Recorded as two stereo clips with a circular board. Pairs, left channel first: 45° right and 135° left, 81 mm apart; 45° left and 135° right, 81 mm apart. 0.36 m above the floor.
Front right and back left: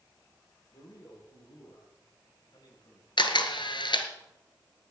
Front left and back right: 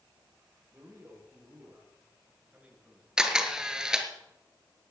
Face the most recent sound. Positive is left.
turn(degrees=-55)